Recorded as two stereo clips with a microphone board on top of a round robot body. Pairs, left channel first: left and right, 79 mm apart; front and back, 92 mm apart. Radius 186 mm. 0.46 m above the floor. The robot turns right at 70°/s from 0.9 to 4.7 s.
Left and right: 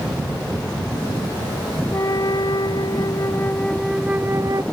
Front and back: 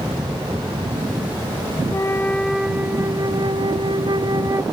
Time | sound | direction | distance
1.9 | a flute | 45° left | ?